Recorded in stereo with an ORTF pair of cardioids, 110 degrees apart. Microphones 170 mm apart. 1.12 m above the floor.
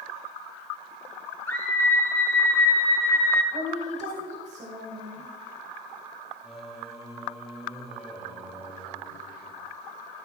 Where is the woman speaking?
50° right, 4.5 m.